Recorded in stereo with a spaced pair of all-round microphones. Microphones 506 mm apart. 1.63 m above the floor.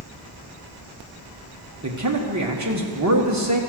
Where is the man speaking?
35° right (ahead or behind), 1.3 m.